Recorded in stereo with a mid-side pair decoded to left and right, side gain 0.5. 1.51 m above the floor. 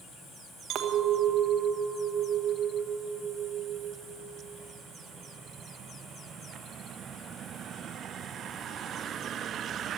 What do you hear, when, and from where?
0.7 s a clink: 65° right, 1.3 m